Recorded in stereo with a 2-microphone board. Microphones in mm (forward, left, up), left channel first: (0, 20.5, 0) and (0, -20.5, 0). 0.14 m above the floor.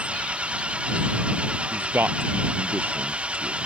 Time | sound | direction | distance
0.0 | an engine running | 30° right (ahead or behind) | ?
1.7 | a man speaking | 55° right (ahead or behind) | ?